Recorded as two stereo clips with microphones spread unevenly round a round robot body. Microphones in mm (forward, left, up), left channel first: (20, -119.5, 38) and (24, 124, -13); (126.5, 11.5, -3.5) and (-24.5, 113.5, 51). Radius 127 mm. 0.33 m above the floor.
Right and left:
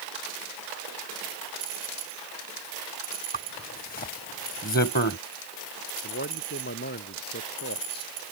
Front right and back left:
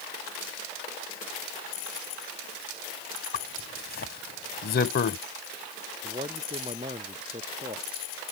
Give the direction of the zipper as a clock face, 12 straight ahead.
1 o'clock.